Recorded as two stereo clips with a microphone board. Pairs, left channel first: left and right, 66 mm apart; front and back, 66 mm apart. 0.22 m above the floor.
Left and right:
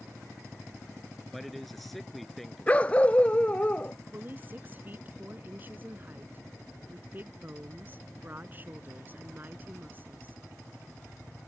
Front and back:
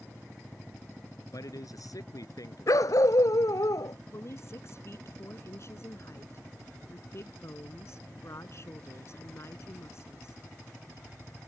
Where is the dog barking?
20° left.